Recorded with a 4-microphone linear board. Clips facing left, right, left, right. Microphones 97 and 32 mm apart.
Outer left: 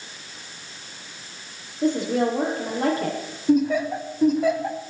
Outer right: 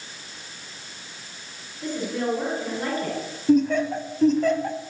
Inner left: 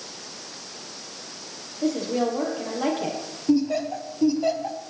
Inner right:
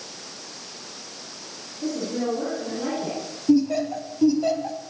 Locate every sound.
1.8 s a woman speaking: 80° left, 6.5 m
3.5 s laughter: 10° left (ahead or behind), 1.2 m